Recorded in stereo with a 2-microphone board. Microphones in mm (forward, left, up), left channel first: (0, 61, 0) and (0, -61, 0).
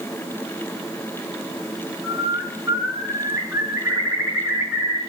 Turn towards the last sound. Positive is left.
turn(degrees=-20)  # may be behind; listen again after turning